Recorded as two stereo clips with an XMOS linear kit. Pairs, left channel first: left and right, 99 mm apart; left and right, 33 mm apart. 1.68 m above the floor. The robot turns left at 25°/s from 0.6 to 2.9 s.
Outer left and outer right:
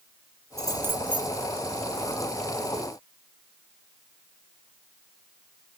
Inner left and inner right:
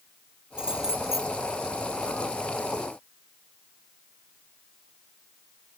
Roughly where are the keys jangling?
Right.